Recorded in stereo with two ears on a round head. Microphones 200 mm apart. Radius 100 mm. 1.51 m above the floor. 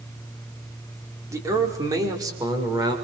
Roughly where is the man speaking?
Centre.